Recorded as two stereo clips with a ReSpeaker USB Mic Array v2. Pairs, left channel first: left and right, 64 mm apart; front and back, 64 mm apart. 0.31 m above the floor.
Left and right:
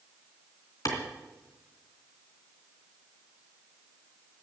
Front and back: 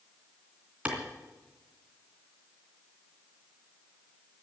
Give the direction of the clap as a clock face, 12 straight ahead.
8 o'clock.